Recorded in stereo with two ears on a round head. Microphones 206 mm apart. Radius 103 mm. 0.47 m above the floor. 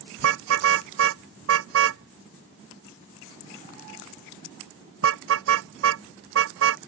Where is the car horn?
60° right (ahead or behind).